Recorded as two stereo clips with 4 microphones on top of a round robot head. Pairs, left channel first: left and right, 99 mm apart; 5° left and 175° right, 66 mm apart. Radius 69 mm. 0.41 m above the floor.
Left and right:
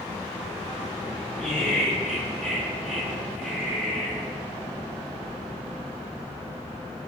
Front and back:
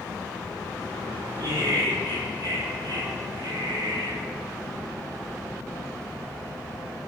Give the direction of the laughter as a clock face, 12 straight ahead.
6 o'clock.